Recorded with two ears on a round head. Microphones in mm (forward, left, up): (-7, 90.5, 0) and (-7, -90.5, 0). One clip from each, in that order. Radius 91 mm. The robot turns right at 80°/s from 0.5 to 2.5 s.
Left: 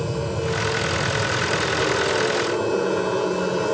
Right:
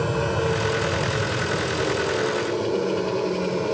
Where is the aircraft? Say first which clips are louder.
Right 3 dB; 55° right; by 3.7 s 105° left.